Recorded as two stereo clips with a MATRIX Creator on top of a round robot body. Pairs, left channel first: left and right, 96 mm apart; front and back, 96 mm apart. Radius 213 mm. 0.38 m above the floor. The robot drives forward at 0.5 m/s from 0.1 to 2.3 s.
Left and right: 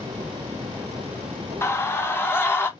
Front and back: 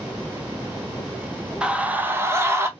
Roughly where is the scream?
Left.